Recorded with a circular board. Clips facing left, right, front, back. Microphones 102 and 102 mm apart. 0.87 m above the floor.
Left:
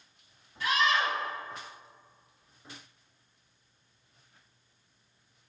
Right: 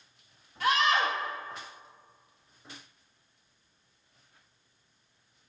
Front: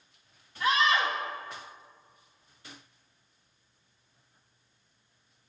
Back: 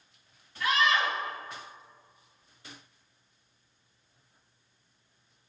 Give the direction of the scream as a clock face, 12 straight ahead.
2 o'clock.